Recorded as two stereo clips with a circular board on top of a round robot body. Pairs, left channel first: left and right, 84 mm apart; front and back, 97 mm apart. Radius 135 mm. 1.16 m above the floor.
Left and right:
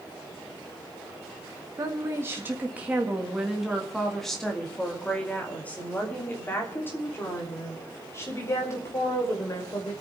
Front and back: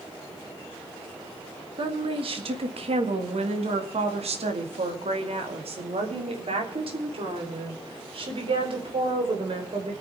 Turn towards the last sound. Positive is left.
turn(degrees=145)